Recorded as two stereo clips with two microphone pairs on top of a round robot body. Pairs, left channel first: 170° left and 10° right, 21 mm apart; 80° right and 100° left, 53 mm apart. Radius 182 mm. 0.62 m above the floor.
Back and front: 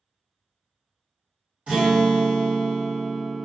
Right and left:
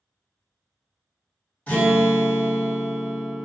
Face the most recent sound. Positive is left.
turn(degrees=-15)